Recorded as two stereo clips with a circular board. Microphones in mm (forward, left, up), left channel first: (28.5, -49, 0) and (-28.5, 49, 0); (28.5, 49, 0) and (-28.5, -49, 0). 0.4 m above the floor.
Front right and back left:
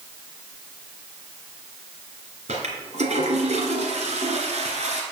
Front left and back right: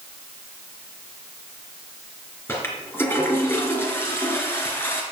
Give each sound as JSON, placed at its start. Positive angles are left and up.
{"t": 2.5, "sound": "a toilet flushing", "azimuth_deg": 130, "distance_m": 2.5}